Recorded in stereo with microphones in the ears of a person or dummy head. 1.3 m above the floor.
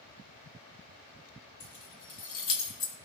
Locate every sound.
1.6 s keys jangling: 60° left (ahead or behind), 1.5 m; by 3.0 s 70° left (ahead or behind), 1.5 m